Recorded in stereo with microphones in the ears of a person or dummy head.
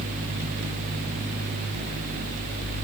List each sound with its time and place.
Only background noise.